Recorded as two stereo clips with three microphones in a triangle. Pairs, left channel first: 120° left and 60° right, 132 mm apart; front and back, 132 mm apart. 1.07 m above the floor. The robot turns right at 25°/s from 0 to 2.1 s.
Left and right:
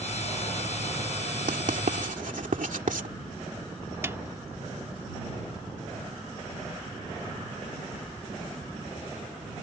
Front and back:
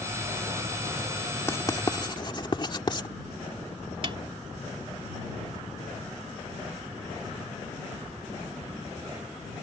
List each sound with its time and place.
1.5 s writing: 70° right; by 3.1 s 55° right
4.0 s a snare drum: 130° right